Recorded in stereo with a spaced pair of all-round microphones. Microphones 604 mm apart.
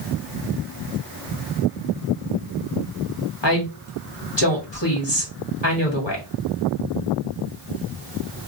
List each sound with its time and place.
3.4 s a woman speaking: 45° left (ahead or behind), 1.3 m